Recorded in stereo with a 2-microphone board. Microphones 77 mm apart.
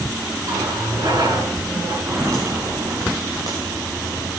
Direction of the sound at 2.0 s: 45° right (ahead or behind).